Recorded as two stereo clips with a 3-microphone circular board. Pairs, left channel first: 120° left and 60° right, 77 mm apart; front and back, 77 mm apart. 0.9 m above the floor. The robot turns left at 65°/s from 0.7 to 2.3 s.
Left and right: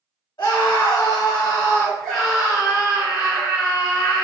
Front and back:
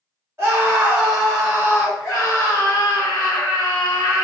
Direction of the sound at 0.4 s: 130° left.